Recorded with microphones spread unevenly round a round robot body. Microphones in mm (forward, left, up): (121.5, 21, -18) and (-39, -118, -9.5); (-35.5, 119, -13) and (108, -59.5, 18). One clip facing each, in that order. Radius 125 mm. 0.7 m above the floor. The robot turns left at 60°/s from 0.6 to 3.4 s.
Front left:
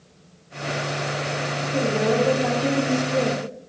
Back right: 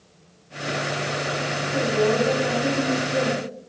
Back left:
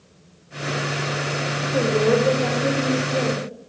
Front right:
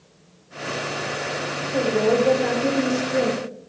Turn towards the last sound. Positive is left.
turn(degrees=-5)